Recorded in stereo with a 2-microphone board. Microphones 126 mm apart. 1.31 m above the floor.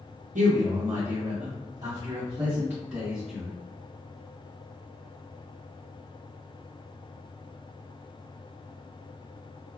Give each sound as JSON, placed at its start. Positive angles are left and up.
{"t": 0.3, "sound": "a man speaking", "side_deg": -80, "distance_m": 0.7}